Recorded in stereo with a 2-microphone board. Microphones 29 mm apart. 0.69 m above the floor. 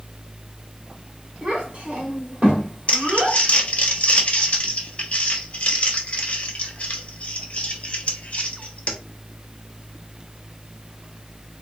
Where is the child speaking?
35° right (ahead or behind), 1.8 m.